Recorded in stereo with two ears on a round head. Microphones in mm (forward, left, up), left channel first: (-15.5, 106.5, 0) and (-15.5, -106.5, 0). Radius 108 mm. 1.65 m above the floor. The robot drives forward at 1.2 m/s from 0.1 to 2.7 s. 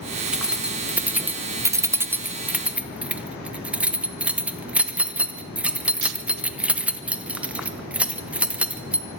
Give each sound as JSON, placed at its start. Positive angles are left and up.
{"t": 0.3, "sound": "keys jangling", "side_deg": -5, "distance_m": 1.8}